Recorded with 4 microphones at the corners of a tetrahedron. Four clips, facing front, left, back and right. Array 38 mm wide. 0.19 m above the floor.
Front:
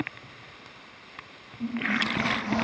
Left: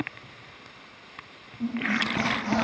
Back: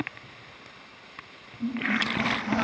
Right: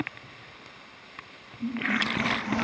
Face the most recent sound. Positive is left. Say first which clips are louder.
# left 1 dB, even
turn(degrees=85)